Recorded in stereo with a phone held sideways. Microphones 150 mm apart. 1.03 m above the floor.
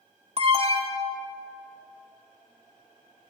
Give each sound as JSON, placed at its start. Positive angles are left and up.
{"t": 0.4, "sound": "an alarm", "side_deg": -40, "distance_m": 2.5}